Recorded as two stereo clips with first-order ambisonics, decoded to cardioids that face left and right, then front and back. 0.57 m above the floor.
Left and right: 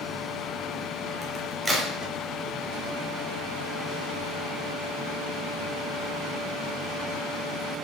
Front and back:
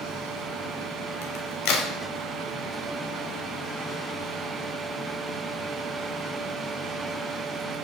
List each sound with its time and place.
1.2 s a crack: 10° right, 0.9 m